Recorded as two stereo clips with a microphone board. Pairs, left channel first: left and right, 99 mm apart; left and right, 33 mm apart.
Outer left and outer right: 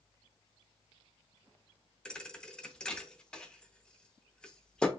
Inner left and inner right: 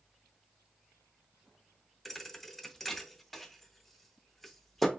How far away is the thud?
About 0.6 m.